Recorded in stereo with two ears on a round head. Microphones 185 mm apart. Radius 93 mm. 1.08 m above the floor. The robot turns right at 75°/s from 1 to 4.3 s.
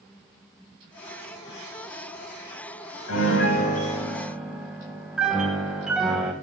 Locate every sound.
3.1 s a piano: 95° left, 3.5 m; by 6.3 s 175° right, 3.5 m